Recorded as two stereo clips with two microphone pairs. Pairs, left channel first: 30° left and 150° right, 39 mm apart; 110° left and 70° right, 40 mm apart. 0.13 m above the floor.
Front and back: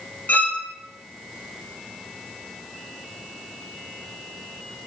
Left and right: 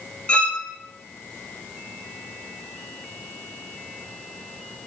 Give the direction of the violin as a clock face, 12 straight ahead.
10 o'clock.